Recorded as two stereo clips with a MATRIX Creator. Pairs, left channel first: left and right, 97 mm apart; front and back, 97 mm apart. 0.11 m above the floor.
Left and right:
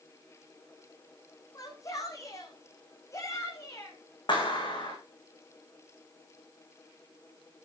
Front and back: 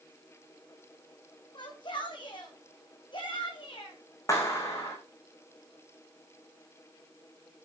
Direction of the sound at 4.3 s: 55° left.